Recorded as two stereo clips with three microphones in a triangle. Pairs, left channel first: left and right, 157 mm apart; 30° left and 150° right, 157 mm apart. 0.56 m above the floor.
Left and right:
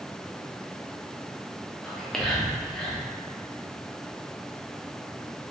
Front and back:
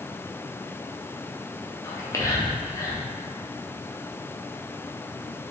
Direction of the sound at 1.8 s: 15° left.